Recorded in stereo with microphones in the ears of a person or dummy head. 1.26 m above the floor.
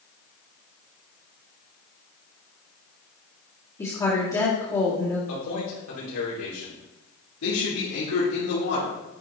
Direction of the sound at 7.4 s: 75° left (ahead or behind).